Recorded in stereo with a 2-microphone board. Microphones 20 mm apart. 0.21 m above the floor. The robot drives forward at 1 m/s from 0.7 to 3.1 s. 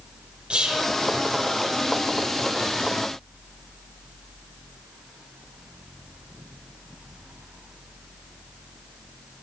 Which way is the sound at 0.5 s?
60° right (ahead or behind).